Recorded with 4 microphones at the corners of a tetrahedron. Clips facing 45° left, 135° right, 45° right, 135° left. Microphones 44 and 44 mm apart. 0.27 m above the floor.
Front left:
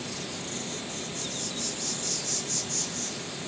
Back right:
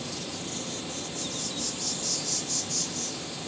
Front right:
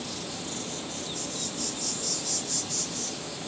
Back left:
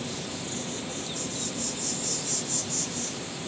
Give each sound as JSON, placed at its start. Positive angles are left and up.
{"t": 0.0, "sound": "an insect", "azimuth_deg": 85, "distance_m": 8.5}